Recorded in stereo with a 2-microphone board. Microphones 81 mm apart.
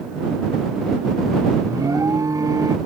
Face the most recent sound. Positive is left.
turn(degrees=-50)  # may be behind; listen again after turning